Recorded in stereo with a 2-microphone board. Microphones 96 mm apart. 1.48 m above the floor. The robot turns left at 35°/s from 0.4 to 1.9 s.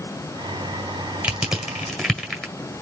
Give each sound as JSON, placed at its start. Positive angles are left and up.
{"t": 1.2, "sound": "crushing", "side_deg": -15, "distance_m": 1.8}